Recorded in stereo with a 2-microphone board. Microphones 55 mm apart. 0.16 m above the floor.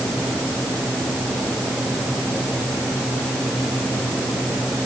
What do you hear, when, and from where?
Only background noise.